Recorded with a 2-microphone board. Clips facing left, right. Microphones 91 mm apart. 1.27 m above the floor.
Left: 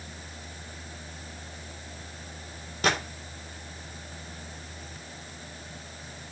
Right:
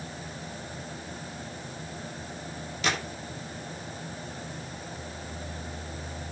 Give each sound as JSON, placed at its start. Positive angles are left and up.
{"t": 2.8, "sound": "a gunshot", "side_deg": 45, "distance_m": 4.5}